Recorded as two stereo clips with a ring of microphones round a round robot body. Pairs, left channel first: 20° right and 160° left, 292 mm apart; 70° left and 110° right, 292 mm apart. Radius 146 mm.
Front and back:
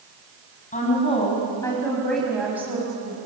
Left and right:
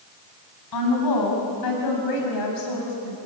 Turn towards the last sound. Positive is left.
turn(degrees=85)